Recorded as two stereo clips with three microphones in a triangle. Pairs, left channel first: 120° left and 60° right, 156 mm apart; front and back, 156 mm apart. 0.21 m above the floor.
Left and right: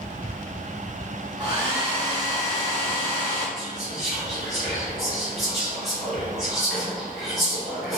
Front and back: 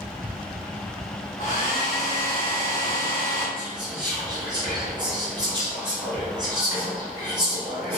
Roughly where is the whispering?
Behind right.